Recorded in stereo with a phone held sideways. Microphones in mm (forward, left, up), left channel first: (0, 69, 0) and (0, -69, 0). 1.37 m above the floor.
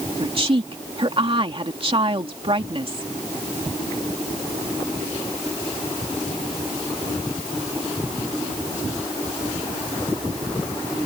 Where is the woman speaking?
40° right (ahead or behind).